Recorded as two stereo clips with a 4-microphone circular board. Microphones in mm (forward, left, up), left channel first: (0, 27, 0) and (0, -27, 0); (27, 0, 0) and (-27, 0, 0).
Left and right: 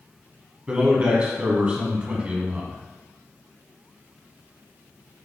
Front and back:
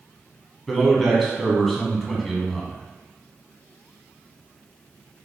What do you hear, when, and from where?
0.7 s a man speaking: 85° right, 1.3 m